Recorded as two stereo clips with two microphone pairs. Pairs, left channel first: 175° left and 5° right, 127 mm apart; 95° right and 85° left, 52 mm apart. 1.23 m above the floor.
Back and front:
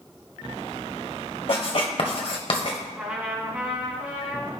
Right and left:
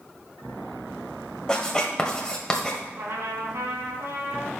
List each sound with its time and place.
1.5 s writing: 165° right, 1.6 m
3.0 s a trumpet: 70° left, 3 m